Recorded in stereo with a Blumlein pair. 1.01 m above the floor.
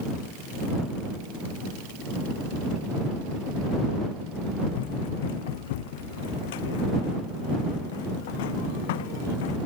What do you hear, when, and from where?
4.7 s running footsteps: 55° left